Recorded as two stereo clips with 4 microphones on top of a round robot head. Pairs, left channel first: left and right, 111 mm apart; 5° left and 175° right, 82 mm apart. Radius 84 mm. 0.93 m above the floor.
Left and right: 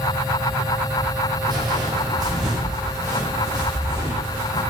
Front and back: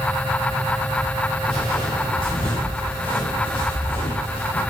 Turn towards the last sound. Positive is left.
turn(degrees=-30)